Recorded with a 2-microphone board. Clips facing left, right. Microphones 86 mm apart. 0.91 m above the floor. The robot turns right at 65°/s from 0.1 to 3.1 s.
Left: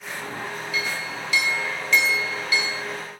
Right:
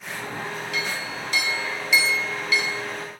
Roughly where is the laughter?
I don't hear laughter.